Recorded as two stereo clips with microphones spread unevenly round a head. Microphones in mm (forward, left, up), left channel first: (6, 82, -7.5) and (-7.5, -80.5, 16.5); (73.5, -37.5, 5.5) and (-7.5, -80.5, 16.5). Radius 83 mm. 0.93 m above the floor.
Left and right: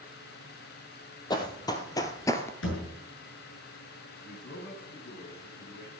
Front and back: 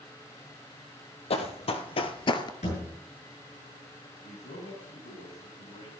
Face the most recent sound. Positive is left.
turn(degrees=50)